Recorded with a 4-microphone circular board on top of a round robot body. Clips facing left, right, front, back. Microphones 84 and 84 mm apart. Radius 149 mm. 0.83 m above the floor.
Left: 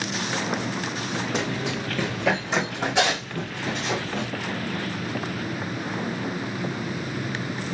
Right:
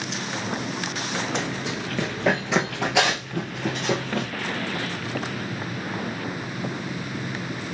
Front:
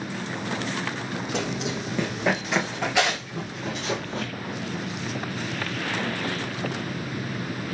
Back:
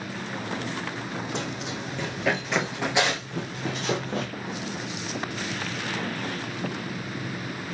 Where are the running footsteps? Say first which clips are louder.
Left 1 dB, front 4 dB; 5° left, 0.9 m; by 4.3 s 130° right, 1.3 m.